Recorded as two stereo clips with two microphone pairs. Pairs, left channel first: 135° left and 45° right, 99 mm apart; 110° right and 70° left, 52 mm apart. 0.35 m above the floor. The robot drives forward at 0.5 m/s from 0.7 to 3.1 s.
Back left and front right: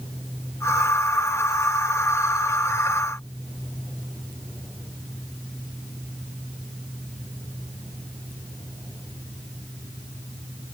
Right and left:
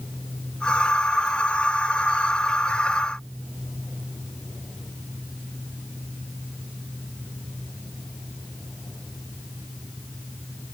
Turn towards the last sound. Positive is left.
No sound to turn to.